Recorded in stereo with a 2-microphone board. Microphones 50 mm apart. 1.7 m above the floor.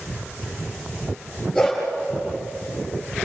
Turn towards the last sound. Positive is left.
turn(degrees=10)  # may be behind; listen again after turning